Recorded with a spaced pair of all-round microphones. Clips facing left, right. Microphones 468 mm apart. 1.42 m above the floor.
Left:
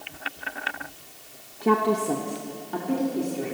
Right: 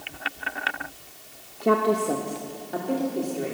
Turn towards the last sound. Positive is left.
turn(degrees=20)  # may be behind; listen again after turning